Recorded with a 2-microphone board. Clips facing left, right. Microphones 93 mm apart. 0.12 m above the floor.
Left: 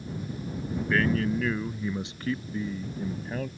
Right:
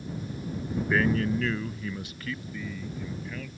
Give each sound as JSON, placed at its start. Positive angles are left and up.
{"t": 0.9, "sound": "a man speaking", "side_deg": -10}